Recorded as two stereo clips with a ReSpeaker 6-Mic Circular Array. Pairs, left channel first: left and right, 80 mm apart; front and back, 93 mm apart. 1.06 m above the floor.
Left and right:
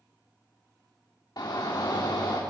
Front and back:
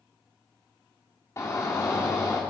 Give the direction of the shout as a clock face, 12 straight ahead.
10 o'clock.